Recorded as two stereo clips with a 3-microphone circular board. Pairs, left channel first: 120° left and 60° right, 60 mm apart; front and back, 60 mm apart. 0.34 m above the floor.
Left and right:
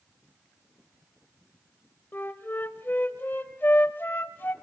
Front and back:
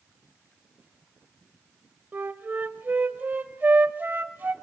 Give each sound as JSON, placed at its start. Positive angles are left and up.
{"t": 2.1, "sound": "a flute", "azimuth_deg": 145, "distance_m": 1.1}